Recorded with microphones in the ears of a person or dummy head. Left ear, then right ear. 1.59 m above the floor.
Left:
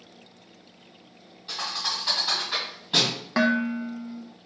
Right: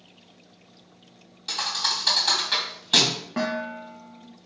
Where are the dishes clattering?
50° left (ahead or behind), 1.1 m.